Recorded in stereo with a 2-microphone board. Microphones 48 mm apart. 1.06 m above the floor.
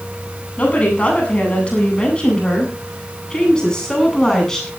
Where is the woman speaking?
30° left (ahead or behind), 8.5 m; by 4.7 s 15° left (ahead or behind), 9 m.